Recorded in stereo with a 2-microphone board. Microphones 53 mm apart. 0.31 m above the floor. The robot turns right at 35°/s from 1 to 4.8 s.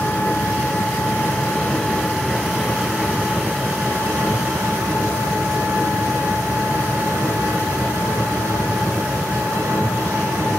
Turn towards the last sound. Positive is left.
turn(degrees=-95)